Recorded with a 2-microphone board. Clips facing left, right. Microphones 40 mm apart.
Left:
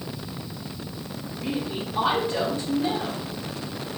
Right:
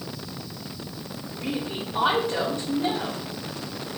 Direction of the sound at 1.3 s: 75° right (ahead or behind).